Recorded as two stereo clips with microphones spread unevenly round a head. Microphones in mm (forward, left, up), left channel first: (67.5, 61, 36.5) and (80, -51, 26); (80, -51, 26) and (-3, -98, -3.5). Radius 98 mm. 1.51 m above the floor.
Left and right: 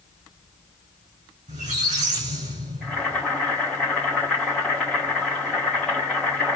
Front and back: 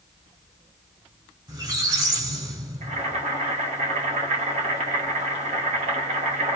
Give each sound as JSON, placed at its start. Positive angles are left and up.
{"t": 1.5, "sound": "a squeak", "azimuth_deg": -95, "distance_m": 3.0}
{"t": 2.8, "sound": "boiling", "azimuth_deg": -175, "distance_m": 1.9}